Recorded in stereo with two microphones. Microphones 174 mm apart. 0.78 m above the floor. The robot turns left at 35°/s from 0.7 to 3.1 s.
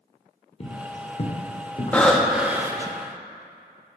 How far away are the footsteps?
About 1.0 m.